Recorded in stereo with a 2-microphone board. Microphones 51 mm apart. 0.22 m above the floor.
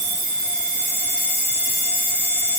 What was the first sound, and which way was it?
Only background noise.